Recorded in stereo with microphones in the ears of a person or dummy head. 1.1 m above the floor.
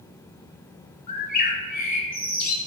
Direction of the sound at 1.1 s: 40° left (ahead or behind).